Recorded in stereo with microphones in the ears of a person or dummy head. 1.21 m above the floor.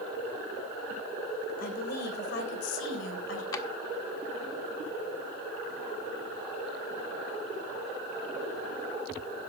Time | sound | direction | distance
1.6 | a woman speaking | 55° left (ahead or behind) | 5 m
3.5 | a drawer | 20° left (ahead or behind) | 1.4 m